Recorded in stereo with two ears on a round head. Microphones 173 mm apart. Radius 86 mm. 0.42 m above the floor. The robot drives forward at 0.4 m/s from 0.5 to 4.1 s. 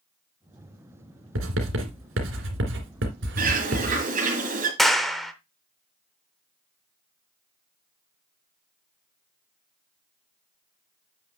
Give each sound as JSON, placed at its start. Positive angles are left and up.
{"t": 1.4, "sound": "writing", "side_deg": -80, "distance_m": 2.5}
{"t": 3.4, "sound": "a bird", "side_deg": -45, "distance_m": 3.0}
{"t": 4.8, "sound": "a clap", "side_deg": 0, "distance_m": 0.8}